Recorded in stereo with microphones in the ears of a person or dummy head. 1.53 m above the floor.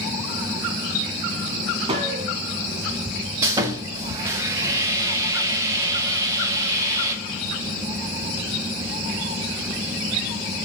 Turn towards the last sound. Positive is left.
turn(degrees=-20)  # may be behind; listen again after turning